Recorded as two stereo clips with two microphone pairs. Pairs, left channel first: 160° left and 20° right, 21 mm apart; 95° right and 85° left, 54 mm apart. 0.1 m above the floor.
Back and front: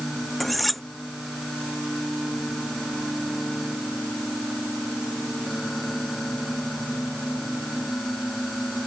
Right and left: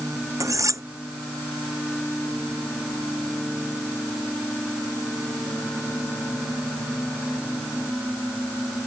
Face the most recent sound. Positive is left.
turn(degrees=75)